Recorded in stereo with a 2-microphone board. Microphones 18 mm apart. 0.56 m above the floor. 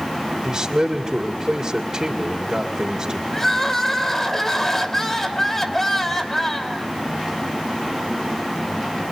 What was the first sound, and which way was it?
A man speaking, 35° right (ahead or behind).